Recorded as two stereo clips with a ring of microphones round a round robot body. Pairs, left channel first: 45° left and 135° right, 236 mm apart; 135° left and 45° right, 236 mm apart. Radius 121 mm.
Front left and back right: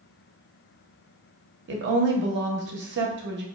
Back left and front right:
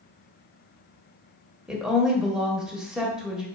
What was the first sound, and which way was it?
A woman speaking, 130° right.